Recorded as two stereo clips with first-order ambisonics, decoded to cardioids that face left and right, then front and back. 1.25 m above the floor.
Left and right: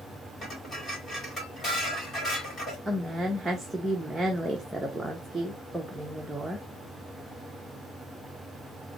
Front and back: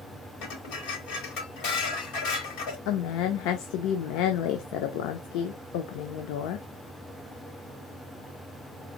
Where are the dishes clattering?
20° left, 3 m.